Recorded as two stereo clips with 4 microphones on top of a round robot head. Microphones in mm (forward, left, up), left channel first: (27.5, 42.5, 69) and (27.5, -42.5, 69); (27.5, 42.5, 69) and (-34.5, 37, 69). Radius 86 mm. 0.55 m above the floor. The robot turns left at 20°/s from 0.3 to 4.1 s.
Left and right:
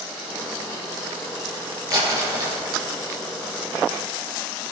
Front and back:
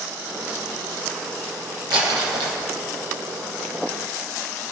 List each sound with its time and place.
1.9 s crumpling: 140° right, 8 m; by 2.6 s 155° right, 8 m